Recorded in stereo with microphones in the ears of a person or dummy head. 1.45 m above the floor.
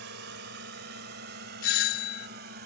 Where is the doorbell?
45° left (ahead or behind).